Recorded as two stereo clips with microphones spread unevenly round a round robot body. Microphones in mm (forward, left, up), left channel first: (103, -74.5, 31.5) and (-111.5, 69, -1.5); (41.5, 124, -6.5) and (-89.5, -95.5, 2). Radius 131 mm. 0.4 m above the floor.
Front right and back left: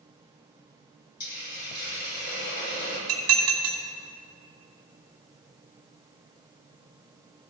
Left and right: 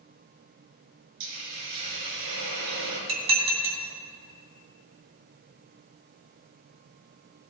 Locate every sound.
1.2 s a hiss: 90° right, 4 m
3.1 s dishes clattering: 175° left, 2.5 m